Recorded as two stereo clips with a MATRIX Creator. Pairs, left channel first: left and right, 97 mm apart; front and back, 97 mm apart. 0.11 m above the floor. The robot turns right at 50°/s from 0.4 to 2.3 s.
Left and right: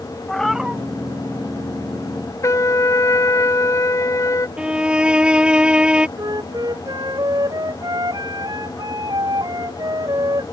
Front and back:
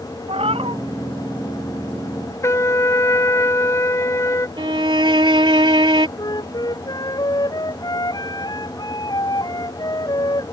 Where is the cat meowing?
175° left; by 0.8 s 165° right.